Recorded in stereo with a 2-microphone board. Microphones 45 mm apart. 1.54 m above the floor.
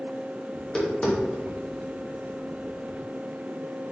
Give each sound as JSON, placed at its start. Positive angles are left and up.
{"t": 0.5, "sound": "tapping", "side_deg": 20, "distance_m": 0.9}